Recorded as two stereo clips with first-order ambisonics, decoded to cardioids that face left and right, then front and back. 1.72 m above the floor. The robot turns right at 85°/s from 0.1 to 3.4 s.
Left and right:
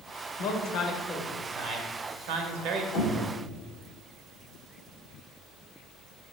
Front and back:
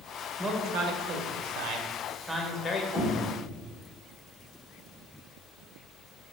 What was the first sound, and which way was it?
A man speaking, 105° left.